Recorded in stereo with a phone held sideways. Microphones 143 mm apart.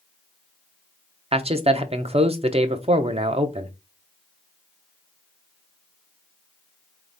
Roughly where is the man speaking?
Right.